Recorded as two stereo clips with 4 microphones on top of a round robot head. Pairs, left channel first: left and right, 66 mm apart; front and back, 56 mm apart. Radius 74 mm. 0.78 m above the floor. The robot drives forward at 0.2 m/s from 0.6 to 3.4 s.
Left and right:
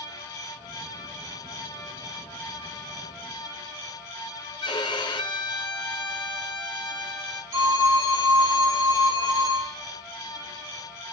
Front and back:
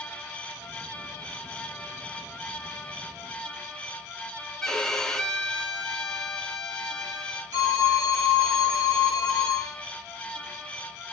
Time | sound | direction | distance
4.6 | a violin | 80° left | 0.9 m
7.5 | a phone ringing | 130° right | 3.5 m